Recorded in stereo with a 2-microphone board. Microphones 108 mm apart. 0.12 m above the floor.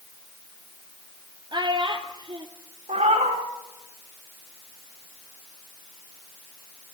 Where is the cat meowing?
85° right, 5 m.